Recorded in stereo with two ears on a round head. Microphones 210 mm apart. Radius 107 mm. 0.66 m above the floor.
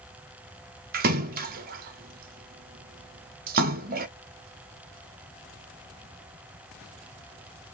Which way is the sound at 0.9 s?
40° right (ahead or behind).